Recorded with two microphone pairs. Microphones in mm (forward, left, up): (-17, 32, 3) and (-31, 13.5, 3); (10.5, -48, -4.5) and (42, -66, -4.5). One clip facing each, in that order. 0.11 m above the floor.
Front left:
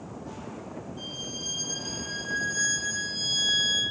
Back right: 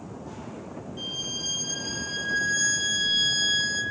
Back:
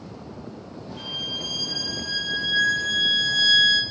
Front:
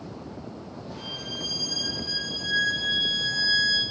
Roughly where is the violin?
Behind.